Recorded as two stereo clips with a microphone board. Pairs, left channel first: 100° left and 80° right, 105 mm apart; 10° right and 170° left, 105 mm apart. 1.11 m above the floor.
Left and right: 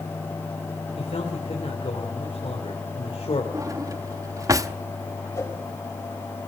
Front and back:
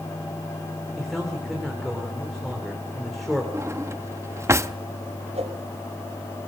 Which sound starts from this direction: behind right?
A drawer, at 3.5 s.